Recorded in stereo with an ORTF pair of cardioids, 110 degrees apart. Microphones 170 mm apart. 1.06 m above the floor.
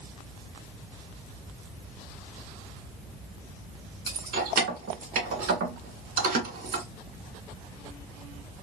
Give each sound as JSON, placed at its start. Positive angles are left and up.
{"t": 4.1, "sound": "keys jangling", "azimuth_deg": -70, "distance_m": 2.0}